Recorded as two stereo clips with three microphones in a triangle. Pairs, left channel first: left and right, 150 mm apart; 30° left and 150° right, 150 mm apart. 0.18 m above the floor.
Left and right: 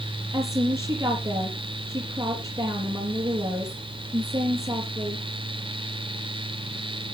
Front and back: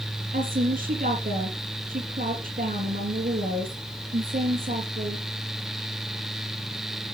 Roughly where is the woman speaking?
Behind right.